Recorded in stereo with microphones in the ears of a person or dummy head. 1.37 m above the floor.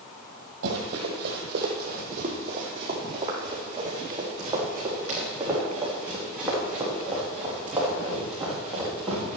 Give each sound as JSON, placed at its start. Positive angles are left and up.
{"t": 0.6, "sound": "running footsteps", "side_deg": -50, "distance_m": 2.0}